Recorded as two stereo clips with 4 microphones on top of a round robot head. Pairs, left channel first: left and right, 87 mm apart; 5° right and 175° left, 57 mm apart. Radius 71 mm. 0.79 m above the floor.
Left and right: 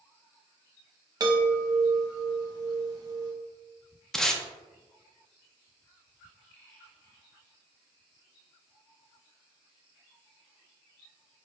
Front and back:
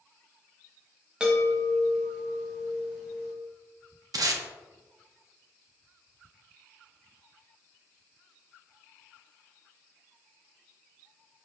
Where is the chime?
115° right, 1.0 m.